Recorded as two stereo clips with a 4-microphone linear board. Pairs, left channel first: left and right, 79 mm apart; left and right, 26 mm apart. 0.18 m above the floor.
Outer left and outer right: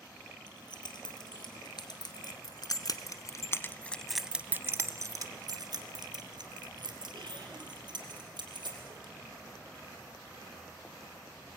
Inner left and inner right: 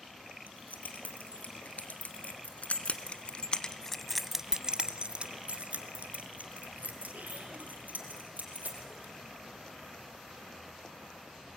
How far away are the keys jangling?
About 3 m.